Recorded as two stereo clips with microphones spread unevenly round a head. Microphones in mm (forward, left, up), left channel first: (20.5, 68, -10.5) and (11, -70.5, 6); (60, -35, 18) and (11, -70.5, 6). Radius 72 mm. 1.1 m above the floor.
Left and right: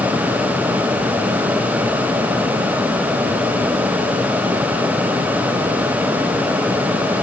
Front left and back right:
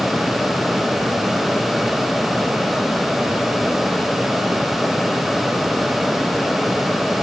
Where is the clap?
I don't hear a clap.